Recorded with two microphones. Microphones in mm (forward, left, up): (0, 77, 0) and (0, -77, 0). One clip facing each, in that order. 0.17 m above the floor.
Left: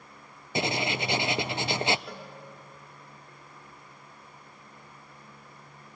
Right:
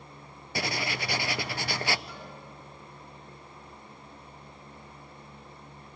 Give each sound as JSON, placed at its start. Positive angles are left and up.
{"t": 0.6, "sound": "writing", "side_deg": 20, "distance_m": 0.5}
{"t": 2.1, "sound": "a cowbell", "side_deg": 80, "distance_m": 9.0}